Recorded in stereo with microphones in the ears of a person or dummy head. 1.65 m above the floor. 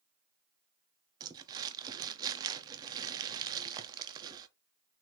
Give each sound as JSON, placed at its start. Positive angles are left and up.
{"t": 1.2, "sound": "crumpling", "side_deg": -25, "distance_m": 0.6}